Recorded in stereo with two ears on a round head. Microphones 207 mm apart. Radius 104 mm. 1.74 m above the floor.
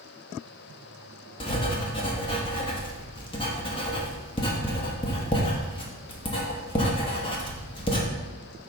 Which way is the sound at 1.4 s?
25° left (ahead or behind).